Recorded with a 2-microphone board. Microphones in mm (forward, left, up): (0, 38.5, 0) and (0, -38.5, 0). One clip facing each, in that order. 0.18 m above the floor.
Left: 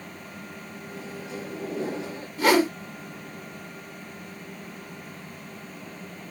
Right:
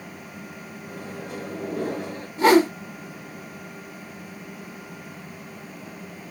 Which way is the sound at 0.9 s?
50° right (ahead or behind).